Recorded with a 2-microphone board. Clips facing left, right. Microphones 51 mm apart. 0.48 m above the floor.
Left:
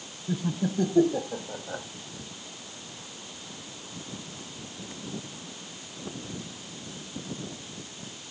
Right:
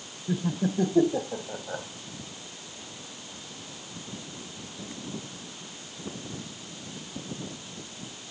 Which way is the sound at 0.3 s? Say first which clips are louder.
Right 1 dB; 10° right (ahead or behind).